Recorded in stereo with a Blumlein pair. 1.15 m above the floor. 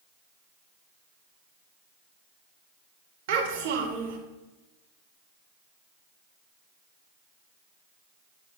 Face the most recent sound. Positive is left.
turn(degrees=-50)